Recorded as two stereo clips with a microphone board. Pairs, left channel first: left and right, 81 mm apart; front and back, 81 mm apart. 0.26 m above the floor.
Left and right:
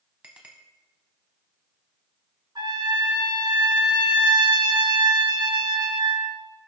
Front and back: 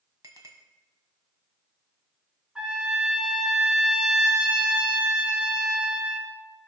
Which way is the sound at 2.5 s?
105° right.